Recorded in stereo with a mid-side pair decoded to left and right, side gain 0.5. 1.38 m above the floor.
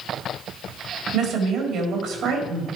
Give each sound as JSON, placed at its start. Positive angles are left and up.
{"t": 1.1, "sound": "a woman speaking", "azimuth_deg": -70, "distance_m": 4.0}